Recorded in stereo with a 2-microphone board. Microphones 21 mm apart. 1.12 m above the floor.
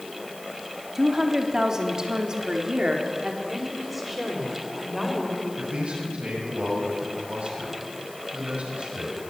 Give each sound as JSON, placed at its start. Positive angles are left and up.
{"t": 0.9, "sound": "a woman speaking", "side_deg": -15, "distance_m": 3.0}
{"t": 3.5, "sound": "a woman speaking", "side_deg": -10, "distance_m": 5.5}
{"t": 5.6, "sound": "a man speaking", "side_deg": -80, "distance_m": 6.0}